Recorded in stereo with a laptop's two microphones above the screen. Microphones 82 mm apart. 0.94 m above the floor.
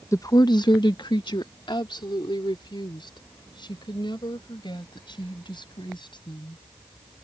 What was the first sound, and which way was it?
A woman speaking, 40° left (ahead or behind).